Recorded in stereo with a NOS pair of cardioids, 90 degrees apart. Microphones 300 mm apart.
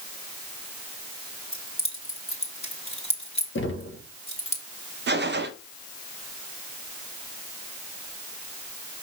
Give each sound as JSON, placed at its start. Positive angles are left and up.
{"t": 1.5, "sound": "keys jangling", "azimuth_deg": 20, "distance_m": 3.0}
{"t": 3.5, "sound": "knocking", "azimuth_deg": 40, "distance_m": 1.6}
{"t": 5.1, "sound": "a gunshot", "azimuth_deg": -35, "distance_m": 0.9}